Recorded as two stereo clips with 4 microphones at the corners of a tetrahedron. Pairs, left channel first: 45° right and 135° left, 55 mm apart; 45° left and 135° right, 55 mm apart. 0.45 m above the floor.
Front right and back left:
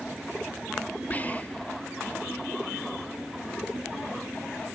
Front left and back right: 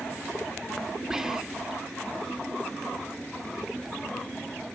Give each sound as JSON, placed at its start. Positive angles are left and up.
{"t": 1.1, "sound": "whispering", "azimuth_deg": -65, "distance_m": 0.8}